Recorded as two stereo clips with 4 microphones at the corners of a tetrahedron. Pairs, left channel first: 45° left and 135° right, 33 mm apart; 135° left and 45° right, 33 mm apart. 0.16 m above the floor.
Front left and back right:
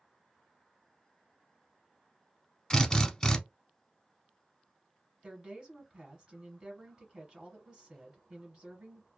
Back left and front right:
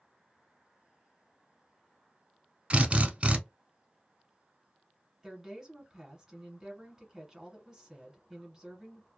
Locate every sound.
2.7 s a drill: 15° right, 0.7 m
5.2 s a woman speaking: 110° right, 1.3 m